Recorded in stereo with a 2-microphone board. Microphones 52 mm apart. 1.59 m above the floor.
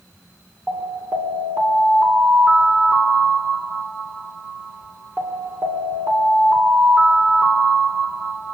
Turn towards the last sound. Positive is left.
turn(degrees=-35)  # may be behind; listen again after turning